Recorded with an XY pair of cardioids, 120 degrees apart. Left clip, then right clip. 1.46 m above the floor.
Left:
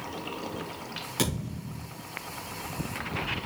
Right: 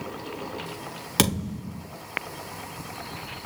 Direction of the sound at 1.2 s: 55° right.